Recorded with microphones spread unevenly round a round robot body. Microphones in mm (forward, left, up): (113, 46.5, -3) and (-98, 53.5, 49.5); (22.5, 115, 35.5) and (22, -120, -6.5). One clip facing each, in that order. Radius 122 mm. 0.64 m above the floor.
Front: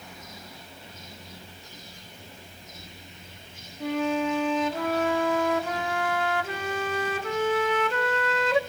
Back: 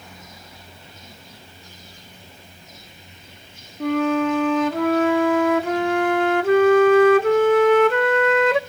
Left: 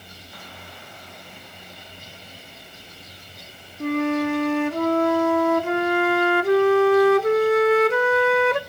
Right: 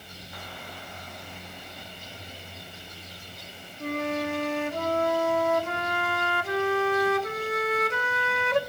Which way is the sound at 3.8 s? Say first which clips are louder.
Back 6 dB, left 8 dB; 135° left.